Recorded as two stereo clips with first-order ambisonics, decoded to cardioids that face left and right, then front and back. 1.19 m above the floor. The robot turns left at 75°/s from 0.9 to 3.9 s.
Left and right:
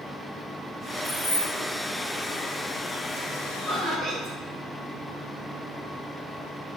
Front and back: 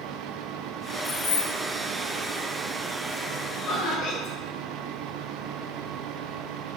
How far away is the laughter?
About 1.2 m.